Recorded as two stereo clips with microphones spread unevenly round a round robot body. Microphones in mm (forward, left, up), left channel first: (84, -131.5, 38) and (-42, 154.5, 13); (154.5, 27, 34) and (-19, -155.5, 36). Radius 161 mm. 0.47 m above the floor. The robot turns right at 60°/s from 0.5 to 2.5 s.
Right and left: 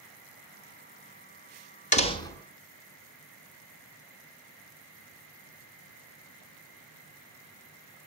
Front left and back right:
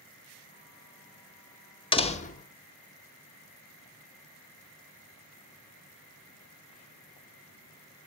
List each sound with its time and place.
1.9 s a door slam: 10° right, 1.0 m; by 2.5 s 25° left, 1.0 m